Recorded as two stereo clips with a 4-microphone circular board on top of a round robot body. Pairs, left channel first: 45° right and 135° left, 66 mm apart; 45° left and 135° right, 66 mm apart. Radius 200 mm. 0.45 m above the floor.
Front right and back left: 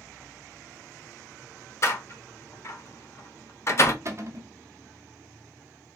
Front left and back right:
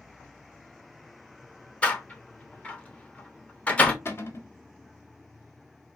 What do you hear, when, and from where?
1.8 s a door slam: 20° right, 1.0 m
4.0 s a cupboard door: 95° left, 0.9 m